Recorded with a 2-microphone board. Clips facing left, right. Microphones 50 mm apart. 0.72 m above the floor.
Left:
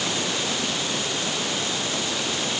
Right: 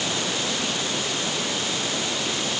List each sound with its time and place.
Only background noise.